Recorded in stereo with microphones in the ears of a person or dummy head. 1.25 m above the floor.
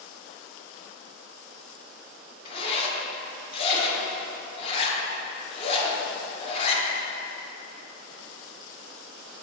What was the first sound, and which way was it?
A zipper, 35° left (ahead or behind).